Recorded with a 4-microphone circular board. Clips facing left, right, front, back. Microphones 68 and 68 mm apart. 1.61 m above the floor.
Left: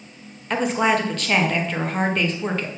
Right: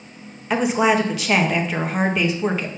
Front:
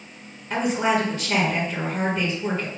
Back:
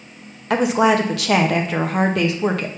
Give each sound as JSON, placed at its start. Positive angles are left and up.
{"t": 0.5, "sound": "a woman speaking", "azimuth_deg": -175, "distance_m": 1.1}